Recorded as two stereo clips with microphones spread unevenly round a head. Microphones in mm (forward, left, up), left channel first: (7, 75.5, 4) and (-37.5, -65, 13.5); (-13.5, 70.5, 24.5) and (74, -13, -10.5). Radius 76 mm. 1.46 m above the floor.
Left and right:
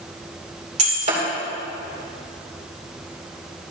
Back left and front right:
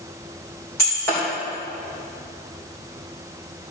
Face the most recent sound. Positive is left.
turn(degrees=-150)